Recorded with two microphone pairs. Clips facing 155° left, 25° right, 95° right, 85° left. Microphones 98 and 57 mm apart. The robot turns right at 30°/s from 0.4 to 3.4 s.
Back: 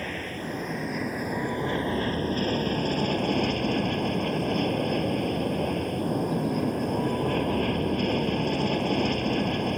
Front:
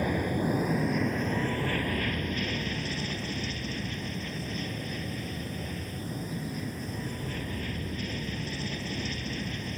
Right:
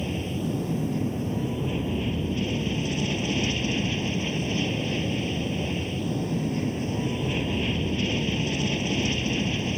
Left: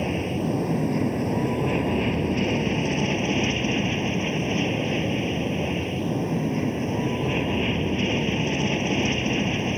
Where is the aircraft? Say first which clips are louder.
Front 5 dB, left 4 dB; 50° left; by 9.8 s 140° left.